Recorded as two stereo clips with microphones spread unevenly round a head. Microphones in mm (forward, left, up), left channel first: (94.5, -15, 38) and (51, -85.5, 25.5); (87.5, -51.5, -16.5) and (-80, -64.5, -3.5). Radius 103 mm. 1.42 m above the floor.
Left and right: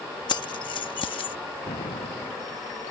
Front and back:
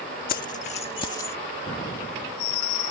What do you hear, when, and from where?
0.3 s keys jangling: 50° left; by 1.4 s 85° left
1.7 s an explosion: 60° left